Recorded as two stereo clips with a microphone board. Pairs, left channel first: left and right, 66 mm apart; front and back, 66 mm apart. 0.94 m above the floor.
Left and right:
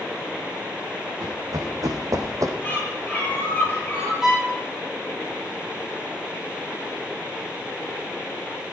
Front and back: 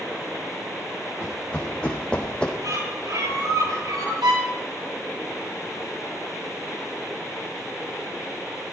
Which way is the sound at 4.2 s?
175° right.